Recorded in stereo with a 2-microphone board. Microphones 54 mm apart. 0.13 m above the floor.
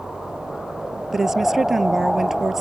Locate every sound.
1.1 s a woman speaking: 5° right (ahead or behind)